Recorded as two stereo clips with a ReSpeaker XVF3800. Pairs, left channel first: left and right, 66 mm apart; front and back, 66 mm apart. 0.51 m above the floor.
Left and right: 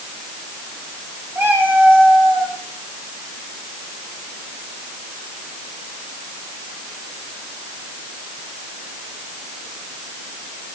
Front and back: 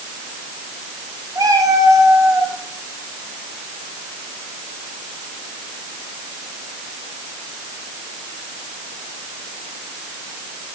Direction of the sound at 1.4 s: 150° right.